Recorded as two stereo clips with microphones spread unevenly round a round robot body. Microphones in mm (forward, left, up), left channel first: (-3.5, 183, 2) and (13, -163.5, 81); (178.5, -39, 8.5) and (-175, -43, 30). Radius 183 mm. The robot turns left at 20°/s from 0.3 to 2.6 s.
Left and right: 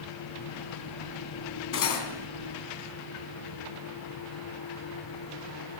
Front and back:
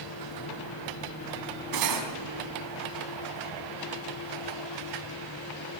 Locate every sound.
1.7 s cutlery clinking: 145° left, 3.5 m; by 2.1 s 140° left, 3.5 m